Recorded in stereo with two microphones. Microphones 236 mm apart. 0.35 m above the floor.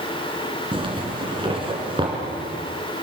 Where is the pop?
No pop in this recording.